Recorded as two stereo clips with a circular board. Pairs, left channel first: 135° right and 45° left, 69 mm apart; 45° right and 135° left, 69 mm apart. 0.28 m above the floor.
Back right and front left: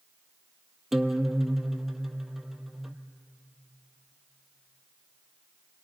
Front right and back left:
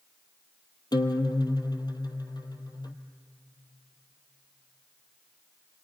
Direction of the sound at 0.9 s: 45° right.